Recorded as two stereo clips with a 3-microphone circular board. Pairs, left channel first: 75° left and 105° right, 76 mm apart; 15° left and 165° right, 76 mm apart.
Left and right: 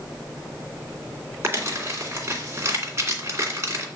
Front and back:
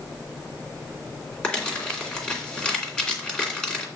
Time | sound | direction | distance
1.4 | crumpling | 60° right | 2.5 m